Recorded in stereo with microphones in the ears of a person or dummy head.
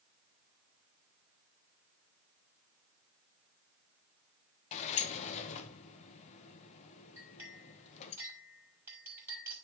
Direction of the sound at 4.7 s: 40° left (ahead or behind).